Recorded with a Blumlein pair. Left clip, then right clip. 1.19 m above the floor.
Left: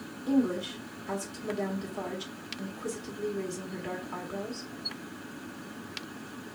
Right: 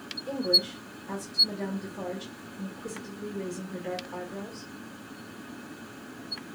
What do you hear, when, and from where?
0.3 s a woman speaking: 15° left, 1.9 m